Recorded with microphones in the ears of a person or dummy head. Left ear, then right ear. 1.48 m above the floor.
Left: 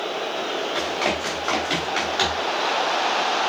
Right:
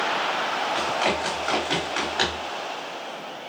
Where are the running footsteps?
Centre (ahead or behind), 4.5 m.